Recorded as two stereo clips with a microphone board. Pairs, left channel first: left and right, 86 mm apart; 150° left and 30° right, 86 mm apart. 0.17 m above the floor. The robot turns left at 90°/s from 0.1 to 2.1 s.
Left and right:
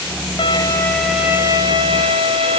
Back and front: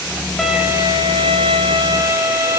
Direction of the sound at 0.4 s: 65° left.